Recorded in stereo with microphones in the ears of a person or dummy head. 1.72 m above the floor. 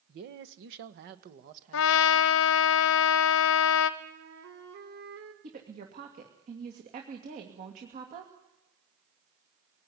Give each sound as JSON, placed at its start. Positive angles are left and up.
{"t": 0.1, "sound": "a man speaking", "side_deg": -45, "distance_m": 1.3}
{"t": 1.7, "sound": "a trumpet", "side_deg": 70, "distance_m": 0.9}
{"t": 4.0, "sound": "a flute", "side_deg": -70, "distance_m": 3.0}
{"t": 5.4, "sound": "a woman speaking", "side_deg": -50, "distance_m": 2.5}